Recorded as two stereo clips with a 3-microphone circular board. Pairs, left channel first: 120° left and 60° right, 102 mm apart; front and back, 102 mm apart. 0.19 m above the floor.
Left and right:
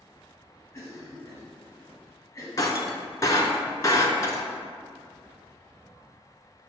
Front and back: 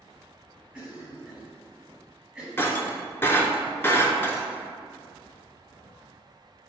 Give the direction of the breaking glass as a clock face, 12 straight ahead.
10 o'clock.